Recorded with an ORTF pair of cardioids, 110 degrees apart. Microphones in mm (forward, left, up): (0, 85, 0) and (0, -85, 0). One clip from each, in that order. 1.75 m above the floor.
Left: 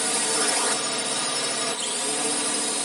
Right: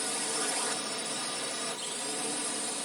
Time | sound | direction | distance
0.0 | a drone | 55° left | ?